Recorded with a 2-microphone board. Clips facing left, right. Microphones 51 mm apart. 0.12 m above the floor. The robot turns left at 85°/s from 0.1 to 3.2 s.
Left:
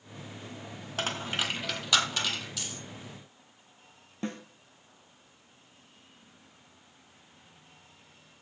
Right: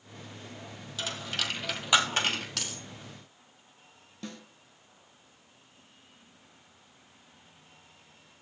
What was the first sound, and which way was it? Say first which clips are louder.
A dropped coin: left 3 dB; 55° left (ahead or behind).